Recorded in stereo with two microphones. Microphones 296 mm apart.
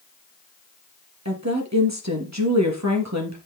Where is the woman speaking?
60° right (ahead or behind), 3.5 m.